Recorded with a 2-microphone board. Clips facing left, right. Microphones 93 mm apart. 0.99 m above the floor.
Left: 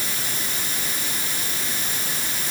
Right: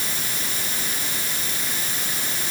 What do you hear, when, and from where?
Only background noise.